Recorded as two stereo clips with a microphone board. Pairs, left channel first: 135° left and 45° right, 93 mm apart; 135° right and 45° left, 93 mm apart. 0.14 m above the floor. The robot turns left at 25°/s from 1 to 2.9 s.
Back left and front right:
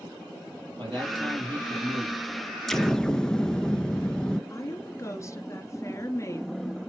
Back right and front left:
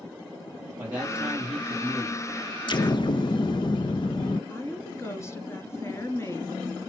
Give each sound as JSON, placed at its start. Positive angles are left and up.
{"t": 0.8, "sound": "a man speaking", "azimuth_deg": -25, "distance_m": 3.5}
{"t": 2.7, "sound": "an explosion", "azimuth_deg": -140, "distance_m": 0.5}
{"t": 4.5, "sound": "a woman speaking", "azimuth_deg": 180, "distance_m": 1.5}